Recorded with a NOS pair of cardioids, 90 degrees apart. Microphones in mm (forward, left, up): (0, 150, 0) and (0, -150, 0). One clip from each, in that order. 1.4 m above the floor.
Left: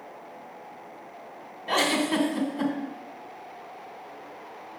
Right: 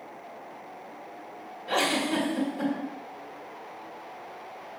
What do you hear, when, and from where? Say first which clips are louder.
1.7 s a giggle: left 2 dB; 25° left, 1.9 m